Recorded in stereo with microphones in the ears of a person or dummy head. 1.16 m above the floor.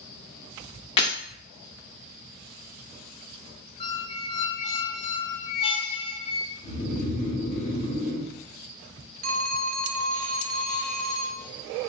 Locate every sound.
1.0 s breaking glass: 30° left (ahead or behind), 0.9 m
3.8 s a squeak: 30° left (ahead or behind), 0.7 m
6.6 s snoring: 40° left (ahead or behind), 2 m
9.2 s a phone ringing: 50° right (ahead or behind), 0.5 m